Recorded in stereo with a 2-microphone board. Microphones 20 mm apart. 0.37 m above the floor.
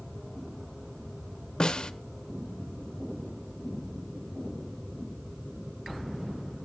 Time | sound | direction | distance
1.6 | a snare drum | 35° left (ahead or behind) | 0.7 m